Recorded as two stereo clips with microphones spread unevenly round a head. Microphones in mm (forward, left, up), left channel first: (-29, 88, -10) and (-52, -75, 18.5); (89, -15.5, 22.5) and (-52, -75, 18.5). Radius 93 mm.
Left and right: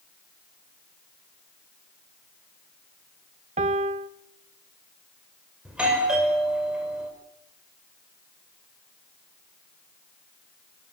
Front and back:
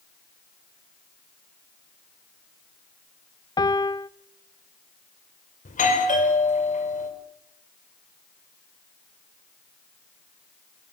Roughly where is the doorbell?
Ahead.